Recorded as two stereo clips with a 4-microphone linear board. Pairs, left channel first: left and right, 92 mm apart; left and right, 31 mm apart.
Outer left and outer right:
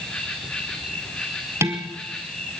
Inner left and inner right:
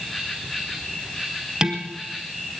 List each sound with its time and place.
0.0 s an insect: 10° left (ahead or behind), 2.5 m
1.6 s dishes clattering: 30° right (ahead or behind), 1.9 m